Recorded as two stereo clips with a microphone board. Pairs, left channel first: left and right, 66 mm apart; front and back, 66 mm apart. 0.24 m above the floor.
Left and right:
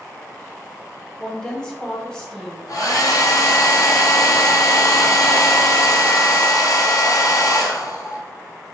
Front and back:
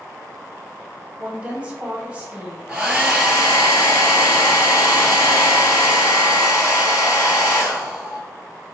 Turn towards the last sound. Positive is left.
turn(degrees=105)